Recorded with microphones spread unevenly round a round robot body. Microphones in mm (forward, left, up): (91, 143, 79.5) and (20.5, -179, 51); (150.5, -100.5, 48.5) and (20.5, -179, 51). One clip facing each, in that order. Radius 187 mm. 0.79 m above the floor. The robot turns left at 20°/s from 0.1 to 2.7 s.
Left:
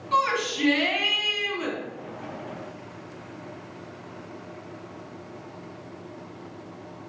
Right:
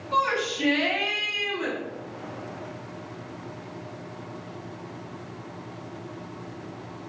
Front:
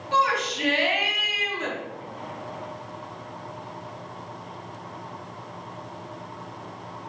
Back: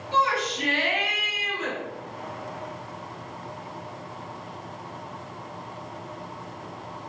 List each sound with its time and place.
0.1 s a shout: 35° left, 1.1 m; by 1.8 s straight ahead, 1.1 m